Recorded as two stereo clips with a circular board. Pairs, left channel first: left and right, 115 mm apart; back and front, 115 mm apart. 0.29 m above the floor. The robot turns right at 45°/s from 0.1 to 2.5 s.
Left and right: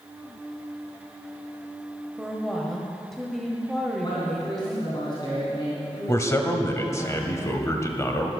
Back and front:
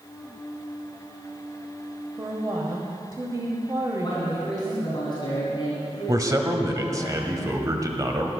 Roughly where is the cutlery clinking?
No cutlery clinking in this recording.